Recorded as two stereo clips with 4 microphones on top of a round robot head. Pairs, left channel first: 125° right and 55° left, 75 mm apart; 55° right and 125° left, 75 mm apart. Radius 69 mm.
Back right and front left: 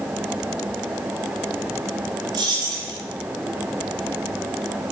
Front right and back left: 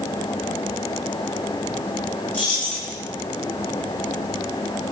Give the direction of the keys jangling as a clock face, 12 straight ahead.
11 o'clock.